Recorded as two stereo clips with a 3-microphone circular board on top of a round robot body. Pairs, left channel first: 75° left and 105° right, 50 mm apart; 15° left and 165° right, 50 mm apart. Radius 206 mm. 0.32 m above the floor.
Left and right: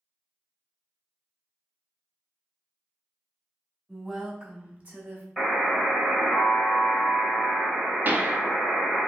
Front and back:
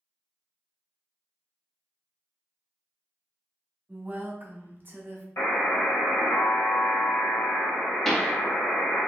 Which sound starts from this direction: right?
A pop, at 8.1 s.